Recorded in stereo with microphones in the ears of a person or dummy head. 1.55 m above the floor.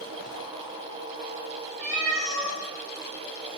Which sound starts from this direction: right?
A cat meowing, at 1.8 s.